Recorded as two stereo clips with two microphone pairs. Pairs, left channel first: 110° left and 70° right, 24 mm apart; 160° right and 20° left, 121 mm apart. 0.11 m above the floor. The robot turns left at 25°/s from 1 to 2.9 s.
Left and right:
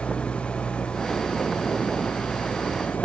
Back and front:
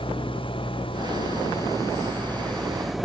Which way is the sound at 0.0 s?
155° left.